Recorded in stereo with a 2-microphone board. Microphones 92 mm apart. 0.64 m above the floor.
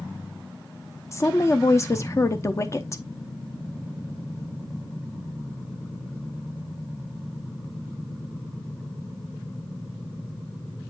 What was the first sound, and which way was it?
A woman speaking, 30° left (ahead or behind).